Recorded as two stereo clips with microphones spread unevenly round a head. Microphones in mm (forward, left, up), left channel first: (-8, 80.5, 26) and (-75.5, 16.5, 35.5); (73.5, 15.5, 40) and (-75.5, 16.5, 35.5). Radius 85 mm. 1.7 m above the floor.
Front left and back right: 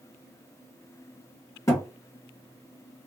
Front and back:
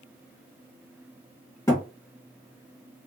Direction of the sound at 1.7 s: 35° left.